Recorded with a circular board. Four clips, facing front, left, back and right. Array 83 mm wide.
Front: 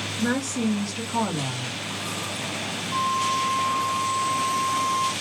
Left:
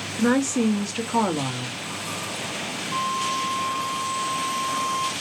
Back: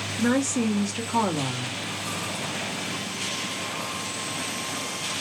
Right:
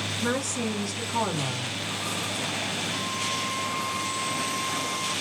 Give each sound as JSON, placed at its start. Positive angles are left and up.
{"t": 0.1, "sound": "a woman speaking", "azimuth_deg": 120, "distance_m": 1.0}
{"t": 2.9, "sound": "a flute", "azimuth_deg": 65, "distance_m": 1.6}